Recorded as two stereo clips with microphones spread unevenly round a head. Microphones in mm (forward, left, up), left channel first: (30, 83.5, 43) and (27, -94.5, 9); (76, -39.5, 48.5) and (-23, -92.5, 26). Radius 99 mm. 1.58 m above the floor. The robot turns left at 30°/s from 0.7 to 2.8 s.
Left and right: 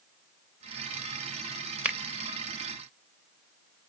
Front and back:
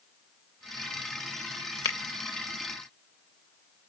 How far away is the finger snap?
About 0.6 m.